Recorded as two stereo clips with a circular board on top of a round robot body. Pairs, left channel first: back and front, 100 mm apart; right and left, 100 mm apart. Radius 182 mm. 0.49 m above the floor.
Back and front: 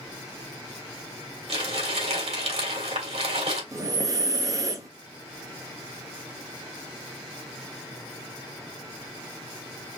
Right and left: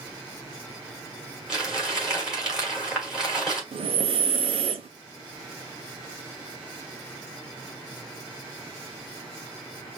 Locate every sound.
1.5 s crumpling: 10° left, 3.5 m
3.7 s breathing: 60° left, 0.6 m